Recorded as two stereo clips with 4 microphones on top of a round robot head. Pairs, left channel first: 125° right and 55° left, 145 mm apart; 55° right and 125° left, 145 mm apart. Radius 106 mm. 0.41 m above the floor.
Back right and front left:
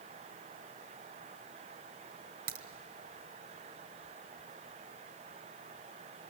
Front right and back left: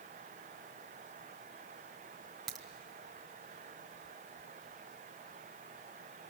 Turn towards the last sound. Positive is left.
turn(degrees=35)